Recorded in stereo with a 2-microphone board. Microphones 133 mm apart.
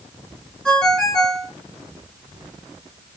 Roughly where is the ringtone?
Centre.